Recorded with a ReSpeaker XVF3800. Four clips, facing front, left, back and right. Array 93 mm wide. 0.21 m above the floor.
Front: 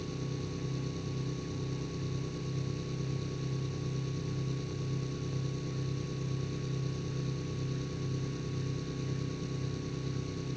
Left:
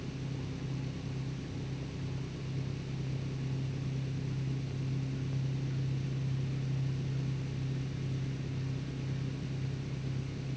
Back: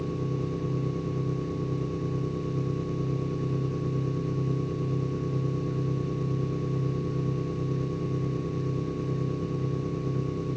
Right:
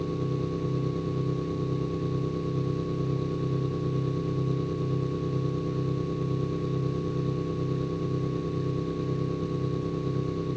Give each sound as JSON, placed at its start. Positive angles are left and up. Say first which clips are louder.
{"t": 0.0, "sound": "an engine running", "louder": "right 11 dB, back 8 dB", "azimuth_deg": -120}